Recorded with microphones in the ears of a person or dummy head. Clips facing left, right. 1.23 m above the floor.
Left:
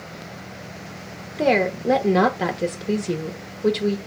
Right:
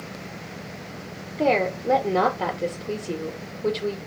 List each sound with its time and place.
1.4 s a woman speaking: 20° left (ahead or behind), 0.6 m